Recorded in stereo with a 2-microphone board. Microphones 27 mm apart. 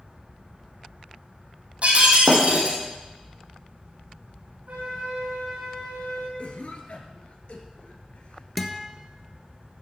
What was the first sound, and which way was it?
Breaking glass, 55° right (ahead or behind).